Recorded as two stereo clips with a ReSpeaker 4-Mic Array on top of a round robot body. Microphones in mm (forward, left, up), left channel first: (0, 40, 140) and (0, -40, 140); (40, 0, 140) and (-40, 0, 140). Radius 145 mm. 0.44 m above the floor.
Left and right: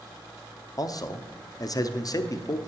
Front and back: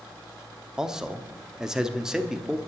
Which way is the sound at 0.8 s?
100° left.